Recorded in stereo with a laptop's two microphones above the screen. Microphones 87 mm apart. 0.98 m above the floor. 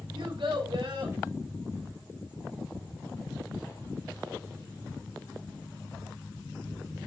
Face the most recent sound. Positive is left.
turn(degrees=-85)